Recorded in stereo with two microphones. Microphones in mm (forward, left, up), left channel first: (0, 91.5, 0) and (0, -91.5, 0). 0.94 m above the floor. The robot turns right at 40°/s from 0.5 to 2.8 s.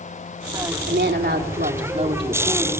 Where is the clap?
I don't hear a clap.